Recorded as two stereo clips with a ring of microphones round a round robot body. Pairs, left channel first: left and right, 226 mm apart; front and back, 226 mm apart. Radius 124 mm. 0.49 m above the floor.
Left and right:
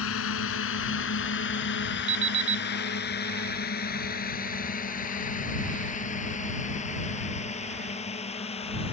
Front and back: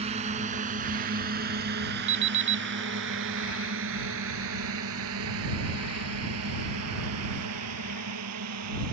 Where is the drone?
115° left; by 8.9 s 155° left.